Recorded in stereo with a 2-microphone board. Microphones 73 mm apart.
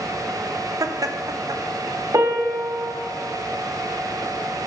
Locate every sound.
0.8 s laughter: 50° right (ahead or behind), 0.5 m
2.1 s a piano: 50° right (ahead or behind), 1.0 m